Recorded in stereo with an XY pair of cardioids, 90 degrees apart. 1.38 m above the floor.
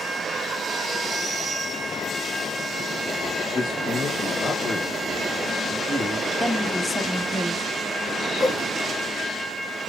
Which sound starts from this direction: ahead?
A woman speaking, at 6.4 s.